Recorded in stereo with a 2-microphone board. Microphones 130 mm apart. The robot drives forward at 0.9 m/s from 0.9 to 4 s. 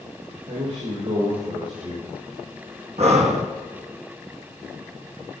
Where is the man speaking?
70° right (ahead or behind), 5.5 m; by 2.2 s 65° right (ahead or behind), 5.5 m.